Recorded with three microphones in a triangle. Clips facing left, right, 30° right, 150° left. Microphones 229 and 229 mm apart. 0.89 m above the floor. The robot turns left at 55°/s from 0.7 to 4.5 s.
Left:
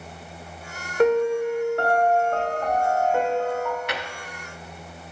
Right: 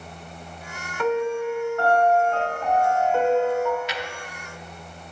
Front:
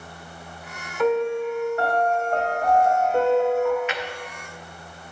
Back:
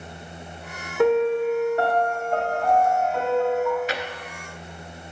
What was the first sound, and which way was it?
A piano, 135° left.